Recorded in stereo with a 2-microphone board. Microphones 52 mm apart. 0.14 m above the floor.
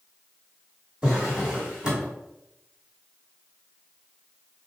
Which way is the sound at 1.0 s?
20° right (ahead or behind).